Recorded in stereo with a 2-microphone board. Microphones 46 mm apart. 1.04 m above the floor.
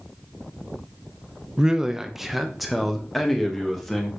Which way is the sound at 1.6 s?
15° right (ahead or behind).